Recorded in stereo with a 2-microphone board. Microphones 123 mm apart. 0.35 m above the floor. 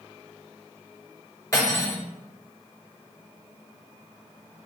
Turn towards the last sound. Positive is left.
turn(degrees=25)  # may be behind; listen again after turning